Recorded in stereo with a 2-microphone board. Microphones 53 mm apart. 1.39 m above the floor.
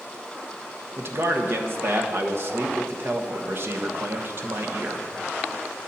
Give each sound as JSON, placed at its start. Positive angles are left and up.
{"t": 1.0, "sound": "a man speaking", "side_deg": -50, "distance_m": 1.3}